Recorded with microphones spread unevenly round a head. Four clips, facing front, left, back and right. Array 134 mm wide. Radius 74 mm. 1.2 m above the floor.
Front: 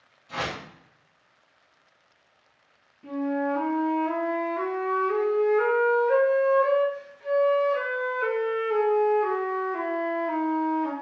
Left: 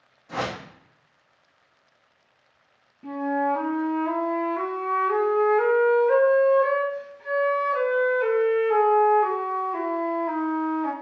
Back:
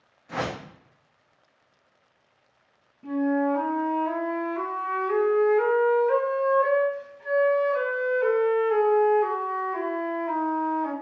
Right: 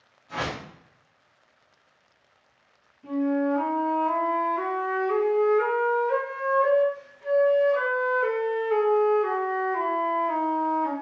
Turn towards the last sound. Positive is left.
turn(degrees=100)